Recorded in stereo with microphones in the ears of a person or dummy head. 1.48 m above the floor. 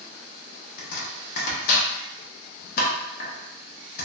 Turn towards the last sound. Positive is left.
turn(degrees=55)  # may be behind; listen again after turning